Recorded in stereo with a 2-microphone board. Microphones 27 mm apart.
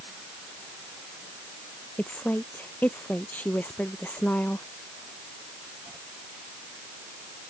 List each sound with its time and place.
2.0 s a woman speaking: 75° left (ahead or behind)